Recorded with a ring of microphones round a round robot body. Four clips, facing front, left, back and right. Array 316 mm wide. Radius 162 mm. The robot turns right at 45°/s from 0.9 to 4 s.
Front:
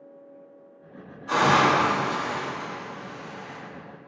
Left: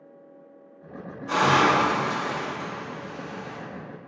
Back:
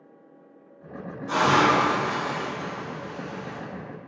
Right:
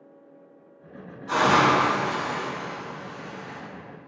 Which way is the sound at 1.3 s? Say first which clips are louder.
Right 1 dB, even; 25° left.